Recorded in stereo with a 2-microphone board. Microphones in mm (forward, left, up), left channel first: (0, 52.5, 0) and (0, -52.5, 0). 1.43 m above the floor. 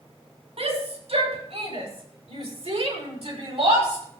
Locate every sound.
0.6 s a shout: 85° right, 6 m; by 4.0 s 70° right (ahead or behind), 6.5 m